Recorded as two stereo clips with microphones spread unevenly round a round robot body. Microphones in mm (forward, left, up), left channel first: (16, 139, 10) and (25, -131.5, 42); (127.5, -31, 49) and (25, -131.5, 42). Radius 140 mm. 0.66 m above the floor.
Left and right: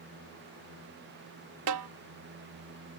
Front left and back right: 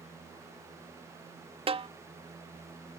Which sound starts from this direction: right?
A snare drum, at 1.7 s.